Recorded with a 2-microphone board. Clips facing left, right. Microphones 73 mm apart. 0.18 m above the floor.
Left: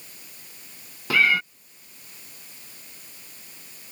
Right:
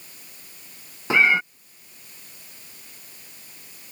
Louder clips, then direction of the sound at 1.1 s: Right 2 dB; 25° right (ahead or behind).